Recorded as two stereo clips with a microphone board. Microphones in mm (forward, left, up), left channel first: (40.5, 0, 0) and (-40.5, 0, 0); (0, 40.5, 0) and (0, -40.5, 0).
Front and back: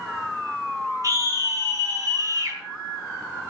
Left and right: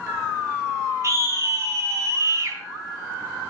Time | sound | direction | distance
1.0 | a scream | 140° right | 3 m